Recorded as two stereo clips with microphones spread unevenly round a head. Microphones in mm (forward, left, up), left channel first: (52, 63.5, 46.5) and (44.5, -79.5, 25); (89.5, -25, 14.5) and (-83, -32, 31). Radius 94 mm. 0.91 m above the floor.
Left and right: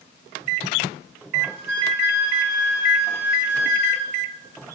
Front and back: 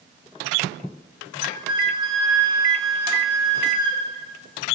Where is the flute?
110° left, 2 m.